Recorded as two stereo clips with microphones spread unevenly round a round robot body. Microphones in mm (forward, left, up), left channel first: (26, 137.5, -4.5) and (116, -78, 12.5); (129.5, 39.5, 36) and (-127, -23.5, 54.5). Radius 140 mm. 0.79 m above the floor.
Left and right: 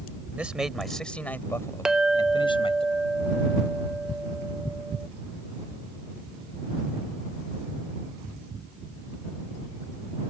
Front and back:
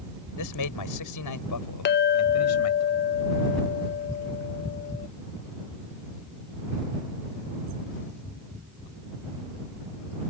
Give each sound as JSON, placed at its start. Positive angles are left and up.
{"t": 0.4, "sound": "a man speaking", "azimuth_deg": 15}
{"t": 1.9, "sound": "a clink", "azimuth_deg": 25}